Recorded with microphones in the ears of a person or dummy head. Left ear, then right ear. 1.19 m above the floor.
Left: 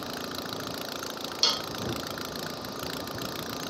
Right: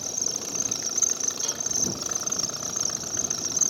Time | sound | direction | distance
0.0 | an insect | 80° right | ?
1.4 | a cowbell | 50° left (ahead or behind) | ?